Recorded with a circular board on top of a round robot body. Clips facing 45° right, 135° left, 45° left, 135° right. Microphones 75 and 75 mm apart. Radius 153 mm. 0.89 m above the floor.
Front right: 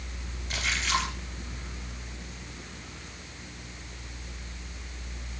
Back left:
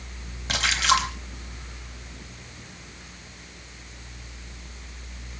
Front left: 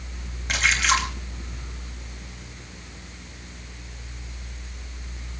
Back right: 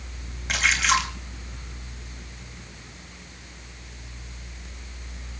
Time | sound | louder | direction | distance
0.5 | a splash | back left 7 dB, even | 135° left | 4 m